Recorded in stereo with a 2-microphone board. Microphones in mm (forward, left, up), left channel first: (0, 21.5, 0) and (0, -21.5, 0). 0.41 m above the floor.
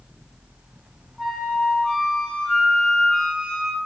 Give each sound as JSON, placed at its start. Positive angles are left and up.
{"t": 1.2, "sound": "a flute", "side_deg": 10, "distance_m": 1.4}